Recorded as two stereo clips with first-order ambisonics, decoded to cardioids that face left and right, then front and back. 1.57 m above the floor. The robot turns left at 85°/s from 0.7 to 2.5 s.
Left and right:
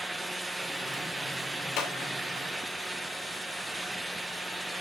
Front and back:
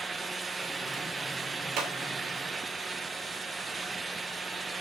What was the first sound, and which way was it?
A clap, 135° left.